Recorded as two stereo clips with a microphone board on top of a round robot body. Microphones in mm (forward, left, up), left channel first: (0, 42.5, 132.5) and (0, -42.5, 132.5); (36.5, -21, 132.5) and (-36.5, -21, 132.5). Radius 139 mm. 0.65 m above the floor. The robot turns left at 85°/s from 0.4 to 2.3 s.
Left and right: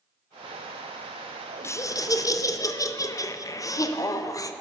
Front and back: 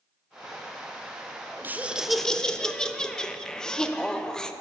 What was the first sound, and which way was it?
Laughter, 130° left.